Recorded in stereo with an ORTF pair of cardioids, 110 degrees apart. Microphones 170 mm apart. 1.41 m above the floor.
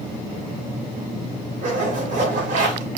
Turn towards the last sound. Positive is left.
turn(degrees=-50)